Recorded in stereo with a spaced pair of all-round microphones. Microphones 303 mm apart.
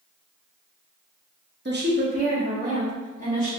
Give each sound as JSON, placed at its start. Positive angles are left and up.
{"t": 1.6, "sound": "a woman speaking", "side_deg": -35, "distance_m": 0.5}